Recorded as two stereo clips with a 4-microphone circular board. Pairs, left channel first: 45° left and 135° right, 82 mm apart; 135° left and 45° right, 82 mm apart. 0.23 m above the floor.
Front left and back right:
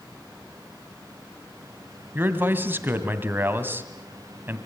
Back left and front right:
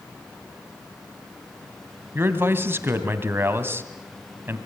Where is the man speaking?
85° right, 2.0 m.